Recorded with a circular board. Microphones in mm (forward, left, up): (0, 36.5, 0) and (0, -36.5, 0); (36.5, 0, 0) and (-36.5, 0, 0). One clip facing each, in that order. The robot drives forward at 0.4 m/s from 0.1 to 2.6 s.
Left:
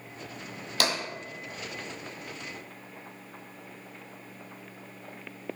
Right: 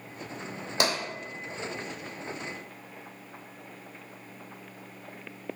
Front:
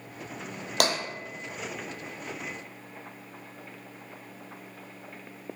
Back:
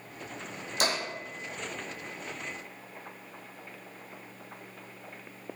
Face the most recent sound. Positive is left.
turn(degrees=-75)